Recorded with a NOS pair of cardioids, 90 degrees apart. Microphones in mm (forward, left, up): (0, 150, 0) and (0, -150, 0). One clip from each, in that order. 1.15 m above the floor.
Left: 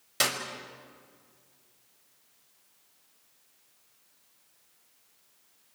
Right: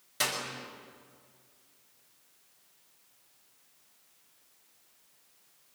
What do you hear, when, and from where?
0.2 s a clap: 50° left, 5.5 m